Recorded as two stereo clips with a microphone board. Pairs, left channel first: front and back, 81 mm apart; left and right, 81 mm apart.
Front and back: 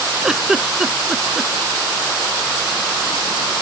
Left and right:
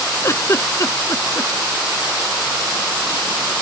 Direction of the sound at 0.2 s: 100° left.